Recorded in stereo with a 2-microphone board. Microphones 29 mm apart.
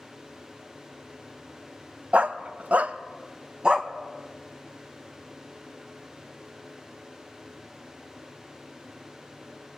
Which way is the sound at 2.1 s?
50° right (ahead or behind).